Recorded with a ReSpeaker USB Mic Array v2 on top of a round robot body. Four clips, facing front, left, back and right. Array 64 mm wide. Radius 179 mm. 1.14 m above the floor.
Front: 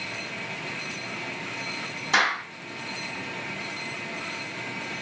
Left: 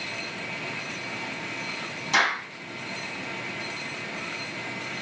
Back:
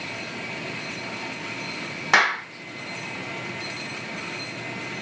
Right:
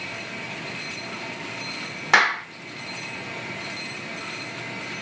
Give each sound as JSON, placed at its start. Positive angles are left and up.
{"t": 2.1, "sound": "a clap", "azimuth_deg": -135, "distance_m": 1.2}